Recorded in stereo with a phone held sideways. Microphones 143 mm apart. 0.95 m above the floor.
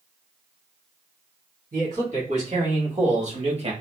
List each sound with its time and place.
1.7 s a man speaking: 70° right (ahead or behind), 2.0 m; by 3.7 s 45° right (ahead or behind), 0.9 m